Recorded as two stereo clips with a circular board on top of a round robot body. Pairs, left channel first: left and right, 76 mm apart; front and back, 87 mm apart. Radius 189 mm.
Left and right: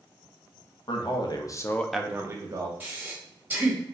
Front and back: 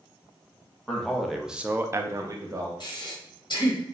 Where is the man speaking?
85° left, 1.1 m; by 2.7 s 125° right, 1.0 m.